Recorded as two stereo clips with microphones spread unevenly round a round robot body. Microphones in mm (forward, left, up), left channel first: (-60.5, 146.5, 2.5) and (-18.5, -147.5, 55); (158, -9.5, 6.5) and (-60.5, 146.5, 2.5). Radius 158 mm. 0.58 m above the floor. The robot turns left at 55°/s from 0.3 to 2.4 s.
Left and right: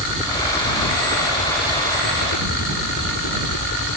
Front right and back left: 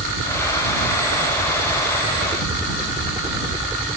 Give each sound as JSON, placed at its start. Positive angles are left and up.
{"t": 0.0, "sound": "a helicopter", "azimuth_deg": -170}